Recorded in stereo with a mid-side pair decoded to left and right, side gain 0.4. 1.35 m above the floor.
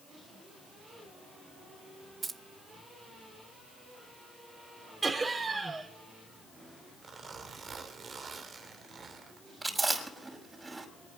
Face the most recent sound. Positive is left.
turn(degrees=-20)